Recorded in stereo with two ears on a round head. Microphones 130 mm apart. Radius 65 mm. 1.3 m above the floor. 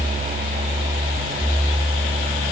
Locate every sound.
Only background noise.